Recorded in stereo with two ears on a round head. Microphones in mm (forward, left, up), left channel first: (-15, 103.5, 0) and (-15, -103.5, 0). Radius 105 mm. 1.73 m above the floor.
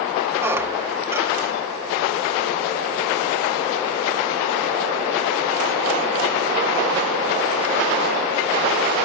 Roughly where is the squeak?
Centre.